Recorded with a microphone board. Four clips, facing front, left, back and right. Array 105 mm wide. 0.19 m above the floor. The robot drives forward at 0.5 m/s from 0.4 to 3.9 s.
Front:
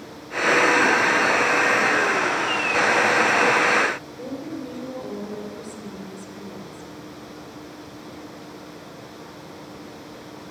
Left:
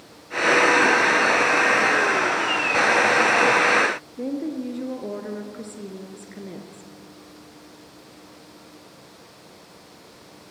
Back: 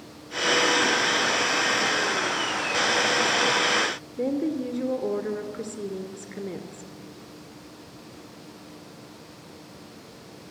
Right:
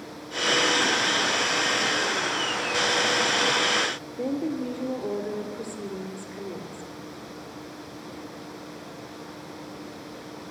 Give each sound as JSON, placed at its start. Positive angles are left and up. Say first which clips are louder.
{"t": 4.2, "sound": "a woman speaking", "louder": "right 2 dB, back 6 dB", "azimuth_deg": 155, "distance_m": 2.5}